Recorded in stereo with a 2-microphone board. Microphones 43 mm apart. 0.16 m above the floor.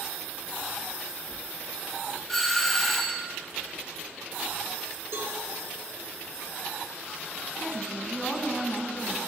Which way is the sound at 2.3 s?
5° left (ahead or behind).